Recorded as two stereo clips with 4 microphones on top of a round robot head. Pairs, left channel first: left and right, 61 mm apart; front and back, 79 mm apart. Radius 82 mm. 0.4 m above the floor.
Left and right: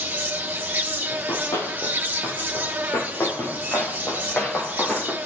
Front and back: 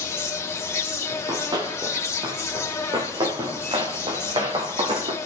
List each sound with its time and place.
0.0 s an insect: 40° right, 1.7 m
1.1 s running footsteps: 140° left, 4.5 m; by 5.2 s 170° left, 3 m